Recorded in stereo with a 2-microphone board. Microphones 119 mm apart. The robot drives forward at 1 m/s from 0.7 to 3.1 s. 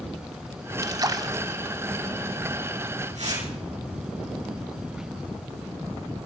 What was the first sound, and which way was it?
A splash, 30° right (ahead or behind).